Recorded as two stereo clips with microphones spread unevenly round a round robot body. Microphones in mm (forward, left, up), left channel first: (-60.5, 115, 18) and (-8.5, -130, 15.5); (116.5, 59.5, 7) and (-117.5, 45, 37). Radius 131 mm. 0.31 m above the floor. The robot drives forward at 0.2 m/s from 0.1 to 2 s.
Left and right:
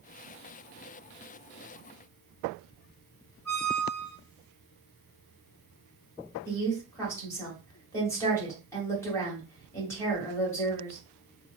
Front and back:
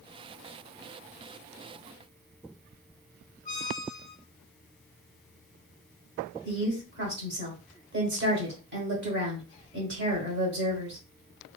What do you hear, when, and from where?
3.5 s a squeak: 35° left, 0.9 m
6.5 s a woman speaking: 175° left, 1.5 m